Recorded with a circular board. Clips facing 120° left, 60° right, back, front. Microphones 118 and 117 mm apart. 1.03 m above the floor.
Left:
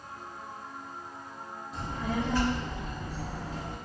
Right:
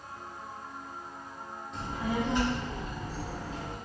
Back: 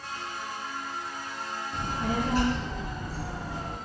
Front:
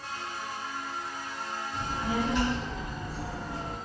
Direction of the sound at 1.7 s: 155° right.